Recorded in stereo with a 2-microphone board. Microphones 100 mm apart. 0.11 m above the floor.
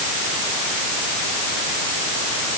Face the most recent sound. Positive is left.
No sound to turn to.